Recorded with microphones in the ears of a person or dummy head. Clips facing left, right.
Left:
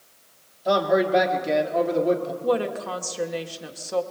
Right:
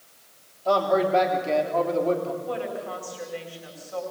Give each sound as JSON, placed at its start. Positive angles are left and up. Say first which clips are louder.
{"t": 0.7, "sound": "a man speaking", "louder": "left 1 dB", "side_deg": 15, "distance_m": 3.5}
{"t": 2.4, "sound": "a woman speaking", "louder": "left 6 dB", "side_deg": 80, "distance_m": 2.0}